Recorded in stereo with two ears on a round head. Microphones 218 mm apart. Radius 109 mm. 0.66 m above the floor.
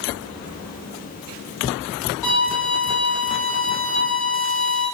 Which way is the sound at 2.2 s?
15° left (ahead or behind).